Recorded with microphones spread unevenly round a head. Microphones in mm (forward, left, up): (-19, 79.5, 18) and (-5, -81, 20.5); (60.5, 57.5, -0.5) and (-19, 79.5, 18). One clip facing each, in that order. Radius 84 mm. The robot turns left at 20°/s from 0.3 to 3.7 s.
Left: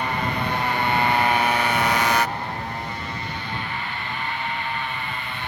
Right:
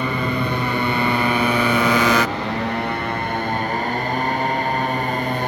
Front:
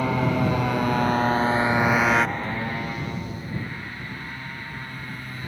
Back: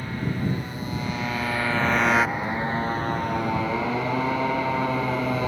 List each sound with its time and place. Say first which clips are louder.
0.0 s a motorcycle: right 4 dB, front 6 dB; 70° right; by 5.5 s 135° right